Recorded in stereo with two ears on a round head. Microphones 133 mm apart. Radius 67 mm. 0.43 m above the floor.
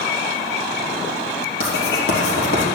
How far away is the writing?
About 3 m.